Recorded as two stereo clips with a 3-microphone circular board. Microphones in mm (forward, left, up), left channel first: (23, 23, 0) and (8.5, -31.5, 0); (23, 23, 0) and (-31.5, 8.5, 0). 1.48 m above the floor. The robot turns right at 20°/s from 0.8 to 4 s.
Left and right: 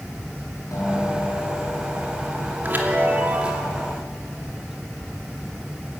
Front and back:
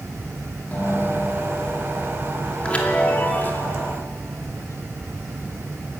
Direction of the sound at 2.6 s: 55° right.